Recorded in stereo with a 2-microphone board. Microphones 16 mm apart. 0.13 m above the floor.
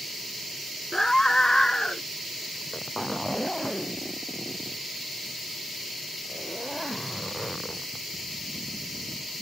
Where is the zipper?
15° left (ahead or behind).